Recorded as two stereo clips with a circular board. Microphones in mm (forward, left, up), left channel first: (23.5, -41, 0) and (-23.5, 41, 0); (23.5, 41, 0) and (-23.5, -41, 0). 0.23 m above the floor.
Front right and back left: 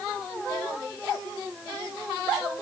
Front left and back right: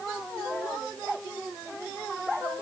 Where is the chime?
No chime in this recording.